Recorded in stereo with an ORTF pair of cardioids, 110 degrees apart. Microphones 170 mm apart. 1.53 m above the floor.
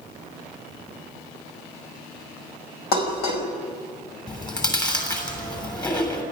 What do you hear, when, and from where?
2.9 s dishes clattering: 65° left, 5 m
4.3 s chewing: 25° left, 7.5 m